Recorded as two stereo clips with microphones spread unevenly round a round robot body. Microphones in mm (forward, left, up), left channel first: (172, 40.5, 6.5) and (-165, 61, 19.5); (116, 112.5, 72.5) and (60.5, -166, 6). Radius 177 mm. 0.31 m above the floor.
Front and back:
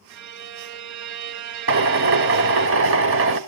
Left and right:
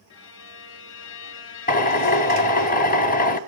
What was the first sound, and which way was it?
A violin, 135° left.